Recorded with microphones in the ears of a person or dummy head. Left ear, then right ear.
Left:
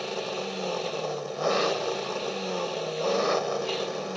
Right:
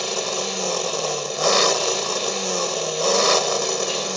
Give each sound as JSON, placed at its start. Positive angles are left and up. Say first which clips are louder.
{"t": 0.0, "sound": "an engine running", "louder": "right 7 dB", "side_deg": -25}